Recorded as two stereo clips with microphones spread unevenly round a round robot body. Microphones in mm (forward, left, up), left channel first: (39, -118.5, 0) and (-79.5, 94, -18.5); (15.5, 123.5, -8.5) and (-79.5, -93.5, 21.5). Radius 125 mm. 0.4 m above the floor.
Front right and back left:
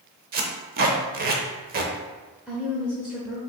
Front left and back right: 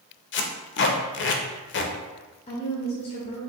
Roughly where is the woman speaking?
Ahead left.